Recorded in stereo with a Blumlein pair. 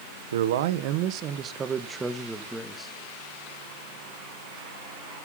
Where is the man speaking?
65° right, 1.0 m; by 3.0 s 10° left, 1.4 m.